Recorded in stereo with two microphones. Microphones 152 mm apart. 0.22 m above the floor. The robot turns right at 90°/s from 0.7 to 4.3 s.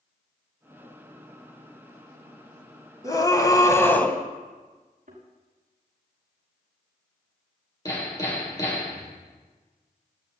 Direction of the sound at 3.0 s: 20° left (ahead or behind).